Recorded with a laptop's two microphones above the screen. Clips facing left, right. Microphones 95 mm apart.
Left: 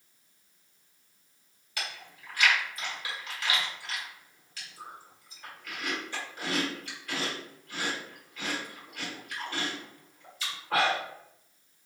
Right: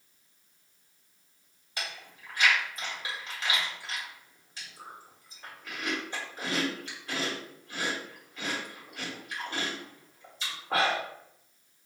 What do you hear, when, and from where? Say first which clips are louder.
1.8 s chewing: even; 25° right (ahead or behind), 1.2 m